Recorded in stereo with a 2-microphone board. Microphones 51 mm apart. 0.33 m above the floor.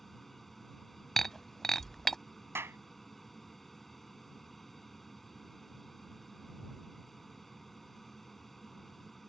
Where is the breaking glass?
5° left (ahead or behind).